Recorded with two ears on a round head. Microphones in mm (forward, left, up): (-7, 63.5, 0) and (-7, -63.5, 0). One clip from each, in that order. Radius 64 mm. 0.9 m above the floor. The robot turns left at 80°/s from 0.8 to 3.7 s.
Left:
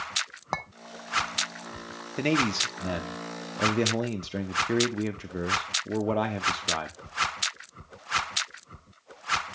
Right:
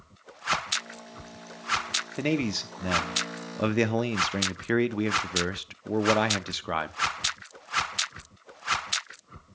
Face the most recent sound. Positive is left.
turn(degrees=-100)